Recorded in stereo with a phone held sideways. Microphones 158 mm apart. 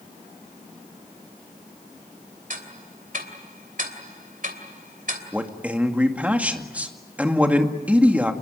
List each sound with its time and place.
2.5 s ticking: 55° right (ahead or behind), 3 m
5.3 s a man speaking: 10° right (ahead or behind), 2 m